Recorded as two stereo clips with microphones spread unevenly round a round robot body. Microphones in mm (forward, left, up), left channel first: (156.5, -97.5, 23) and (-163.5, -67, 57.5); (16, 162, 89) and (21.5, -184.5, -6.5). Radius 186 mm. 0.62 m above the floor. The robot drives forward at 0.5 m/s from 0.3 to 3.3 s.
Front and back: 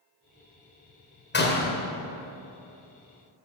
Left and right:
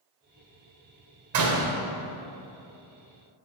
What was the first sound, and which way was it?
A door slam, 60° right.